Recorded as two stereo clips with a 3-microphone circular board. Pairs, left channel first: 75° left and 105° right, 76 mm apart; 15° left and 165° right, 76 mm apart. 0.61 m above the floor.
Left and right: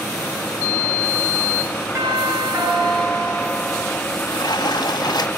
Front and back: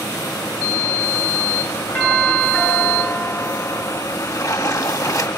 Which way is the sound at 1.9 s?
55° right.